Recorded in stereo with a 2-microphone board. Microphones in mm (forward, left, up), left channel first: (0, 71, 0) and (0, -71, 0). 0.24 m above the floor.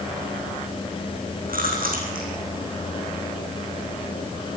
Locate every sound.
1.5 s chewing: 85° right, 5 m